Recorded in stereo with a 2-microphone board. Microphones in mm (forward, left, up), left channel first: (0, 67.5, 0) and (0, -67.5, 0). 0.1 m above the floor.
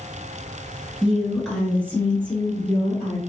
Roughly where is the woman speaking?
Centre.